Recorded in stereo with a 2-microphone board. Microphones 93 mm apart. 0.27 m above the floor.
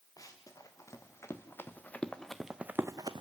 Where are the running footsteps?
40° left (ahead or behind), 3 m; by 3.2 s 55° right (ahead or behind), 0.8 m.